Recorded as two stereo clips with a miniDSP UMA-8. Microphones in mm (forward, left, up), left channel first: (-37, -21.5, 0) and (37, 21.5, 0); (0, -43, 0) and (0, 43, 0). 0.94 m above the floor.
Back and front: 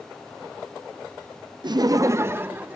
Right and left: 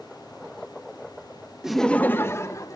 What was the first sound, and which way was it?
Laughter, 10° left.